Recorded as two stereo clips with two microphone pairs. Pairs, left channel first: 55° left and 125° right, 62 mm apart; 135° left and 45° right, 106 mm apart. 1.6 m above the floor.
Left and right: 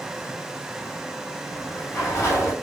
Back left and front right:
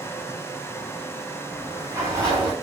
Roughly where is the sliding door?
Ahead.